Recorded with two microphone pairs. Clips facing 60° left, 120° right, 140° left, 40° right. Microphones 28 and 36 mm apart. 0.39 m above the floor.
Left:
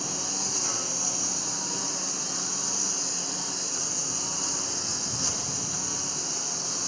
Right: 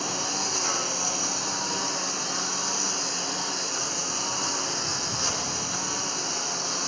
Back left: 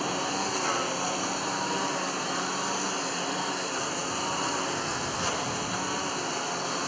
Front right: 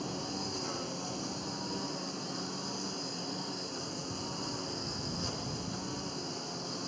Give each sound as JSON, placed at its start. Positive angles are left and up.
{"t": 0.0, "sound": "a lawn mower", "azimuth_deg": 170}